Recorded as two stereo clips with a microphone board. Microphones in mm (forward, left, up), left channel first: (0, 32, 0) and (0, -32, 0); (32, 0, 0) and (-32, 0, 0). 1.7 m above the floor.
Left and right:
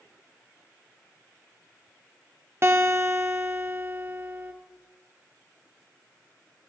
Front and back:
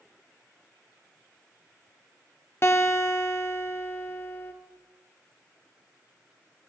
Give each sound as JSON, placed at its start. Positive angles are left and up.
{"t": 2.6, "sound": "a guitar", "azimuth_deg": -45, "distance_m": 1.0}